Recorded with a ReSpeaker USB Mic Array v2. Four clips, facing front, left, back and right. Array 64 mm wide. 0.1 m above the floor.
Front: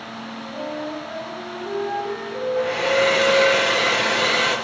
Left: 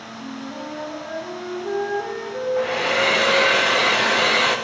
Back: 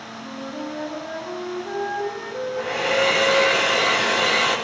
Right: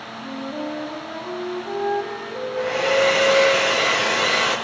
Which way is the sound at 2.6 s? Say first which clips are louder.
Right 3 dB, front 2 dB; 80° left.